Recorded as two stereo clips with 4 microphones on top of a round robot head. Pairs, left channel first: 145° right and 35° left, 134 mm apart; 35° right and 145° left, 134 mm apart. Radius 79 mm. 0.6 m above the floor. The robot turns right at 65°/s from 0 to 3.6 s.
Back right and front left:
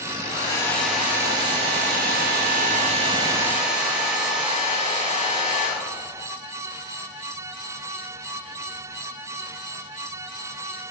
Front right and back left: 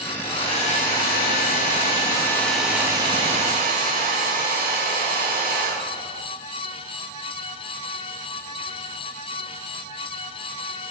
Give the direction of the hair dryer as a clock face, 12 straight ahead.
3 o'clock.